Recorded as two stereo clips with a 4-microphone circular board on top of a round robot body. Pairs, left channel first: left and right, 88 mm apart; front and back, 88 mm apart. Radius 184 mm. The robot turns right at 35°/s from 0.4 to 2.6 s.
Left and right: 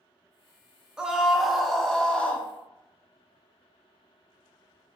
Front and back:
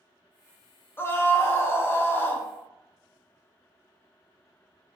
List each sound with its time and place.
1.0 s a scream: 20° right, 0.8 m; by 2.5 s 30° left, 0.8 m